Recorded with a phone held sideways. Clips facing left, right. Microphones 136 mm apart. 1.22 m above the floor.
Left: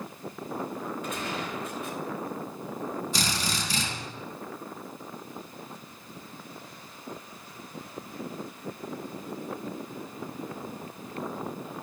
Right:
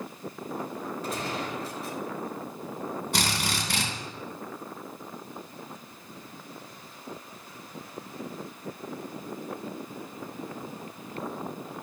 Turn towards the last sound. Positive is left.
turn(degrees=-80)